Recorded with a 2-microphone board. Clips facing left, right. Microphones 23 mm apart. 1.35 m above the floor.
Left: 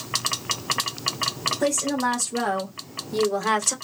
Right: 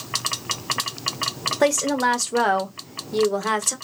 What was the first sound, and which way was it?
A woman speaking, 65° right (ahead or behind).